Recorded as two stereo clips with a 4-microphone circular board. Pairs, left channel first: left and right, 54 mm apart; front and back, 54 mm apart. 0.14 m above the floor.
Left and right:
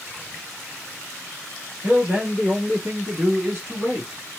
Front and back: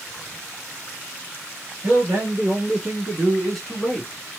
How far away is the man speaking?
About 1.5 m.